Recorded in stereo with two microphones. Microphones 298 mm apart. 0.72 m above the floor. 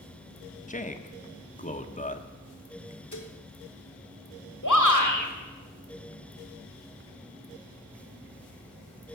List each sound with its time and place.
0.7 s a man speaking: 25° left (ahead or behind), 1.1 m
3.1 s dishes clattering: 75° left (ahead or behind), 1.5 m
4.6 s a shout: 80° left, 2.5 m